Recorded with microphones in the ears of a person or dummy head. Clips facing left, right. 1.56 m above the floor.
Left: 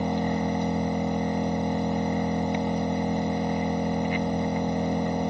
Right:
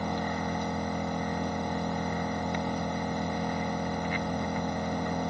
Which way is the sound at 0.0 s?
15° left (ahead or behind).